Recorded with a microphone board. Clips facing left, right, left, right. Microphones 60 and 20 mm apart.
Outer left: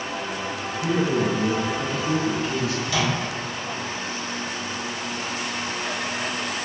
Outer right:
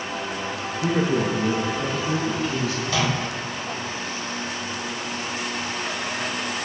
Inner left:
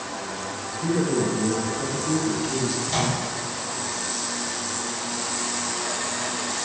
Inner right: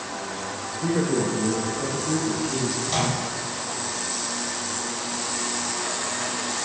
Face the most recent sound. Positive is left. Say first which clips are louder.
# even, even
turn(degrees=-40)  # may be behind; listen again after turning